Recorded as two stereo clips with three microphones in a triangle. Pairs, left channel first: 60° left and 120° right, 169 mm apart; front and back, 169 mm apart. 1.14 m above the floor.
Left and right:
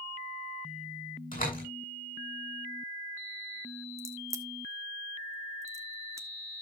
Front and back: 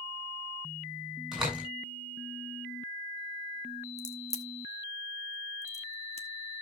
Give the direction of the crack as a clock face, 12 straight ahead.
2 o'clock.